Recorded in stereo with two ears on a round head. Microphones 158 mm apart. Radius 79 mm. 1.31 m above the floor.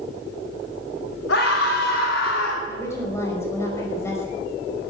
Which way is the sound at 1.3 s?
80° left.